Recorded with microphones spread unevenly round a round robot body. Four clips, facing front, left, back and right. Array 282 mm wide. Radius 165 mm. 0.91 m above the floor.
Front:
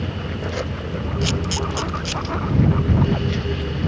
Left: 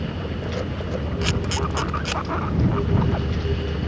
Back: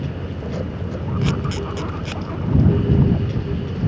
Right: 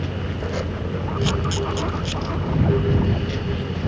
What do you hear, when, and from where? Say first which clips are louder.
1.2 s a camera shutter: right 3 dB, back 1 dB; 105° left